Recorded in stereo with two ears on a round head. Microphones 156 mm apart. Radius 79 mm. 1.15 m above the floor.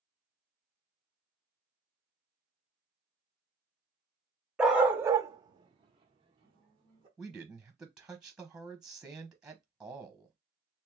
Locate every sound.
4.6 s a dog barking: 5° right (ahead or behind), 0.7 m; by 7.1 s 25° right (ahead or behind), 1.4 m
7.2 s a man speaking: 5° right (ahead or behind), 0.7 m